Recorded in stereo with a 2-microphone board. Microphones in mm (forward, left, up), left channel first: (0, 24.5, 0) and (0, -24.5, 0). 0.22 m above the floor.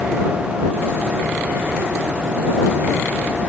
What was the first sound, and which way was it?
Only background noise.